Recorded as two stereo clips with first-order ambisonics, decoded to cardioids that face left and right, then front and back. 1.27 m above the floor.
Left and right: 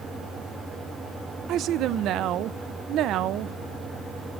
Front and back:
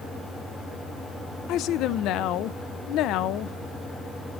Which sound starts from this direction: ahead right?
A woman speaking, at 1.5 s.